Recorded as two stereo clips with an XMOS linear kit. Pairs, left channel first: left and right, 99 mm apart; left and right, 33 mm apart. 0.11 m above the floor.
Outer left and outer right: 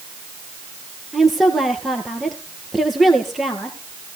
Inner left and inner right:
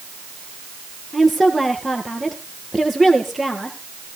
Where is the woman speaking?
Centre (ahead or behind), 1.9 m.